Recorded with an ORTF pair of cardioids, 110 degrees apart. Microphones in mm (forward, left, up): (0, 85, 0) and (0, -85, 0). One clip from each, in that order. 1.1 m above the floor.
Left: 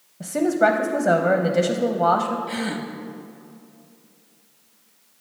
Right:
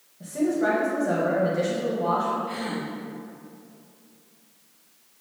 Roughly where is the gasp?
Ahead left.